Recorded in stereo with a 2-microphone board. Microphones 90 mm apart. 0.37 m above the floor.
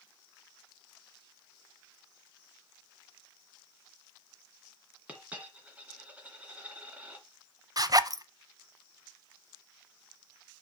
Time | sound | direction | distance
5.1 | a dropped coin | 15° right (ahead or behind) | 1.9 m
7.8 | a zipper | 45° right (ahead or behind) | 0.6 m